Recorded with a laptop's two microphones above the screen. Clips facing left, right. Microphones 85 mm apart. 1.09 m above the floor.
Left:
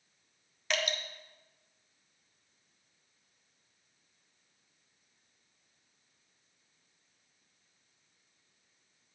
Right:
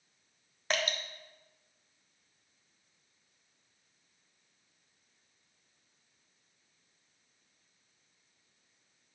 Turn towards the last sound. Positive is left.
turn(degrees=-35)  # may be behind; listen again after turning